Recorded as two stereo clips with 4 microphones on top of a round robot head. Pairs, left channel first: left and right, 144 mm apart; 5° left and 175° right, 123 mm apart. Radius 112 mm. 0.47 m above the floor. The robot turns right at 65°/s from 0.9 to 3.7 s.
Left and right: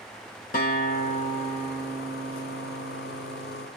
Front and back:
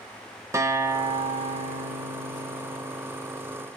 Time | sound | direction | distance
0.5 | a guitar | 120° left | 1.8 m